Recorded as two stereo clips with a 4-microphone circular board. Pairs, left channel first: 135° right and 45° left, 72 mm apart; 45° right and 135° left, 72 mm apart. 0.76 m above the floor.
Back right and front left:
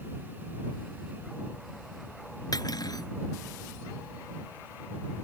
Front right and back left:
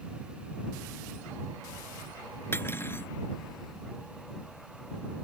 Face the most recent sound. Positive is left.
turn(degrees=-105)